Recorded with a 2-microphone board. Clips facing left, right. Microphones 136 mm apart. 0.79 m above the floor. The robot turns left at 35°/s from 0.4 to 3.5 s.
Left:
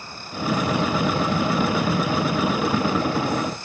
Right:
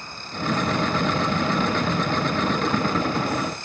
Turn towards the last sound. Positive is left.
No sound to turn to.